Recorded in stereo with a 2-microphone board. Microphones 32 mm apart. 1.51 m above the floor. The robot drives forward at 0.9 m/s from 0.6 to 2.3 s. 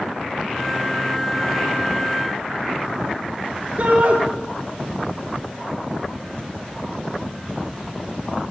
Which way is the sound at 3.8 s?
55° right (ahead or behind).